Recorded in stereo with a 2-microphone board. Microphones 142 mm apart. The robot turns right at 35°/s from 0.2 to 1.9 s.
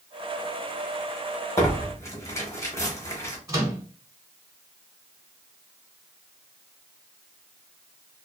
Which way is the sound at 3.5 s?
25° right (ahead or behind).